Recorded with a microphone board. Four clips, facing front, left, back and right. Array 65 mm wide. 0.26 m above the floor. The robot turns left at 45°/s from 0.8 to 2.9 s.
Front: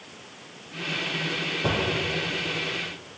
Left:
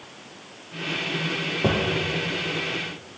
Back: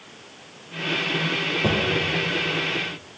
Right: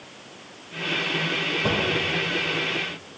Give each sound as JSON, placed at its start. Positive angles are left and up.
{"t": 1.6, "sound": "a drawer", "azimuth_deg": 110, "distance_m": 3.5}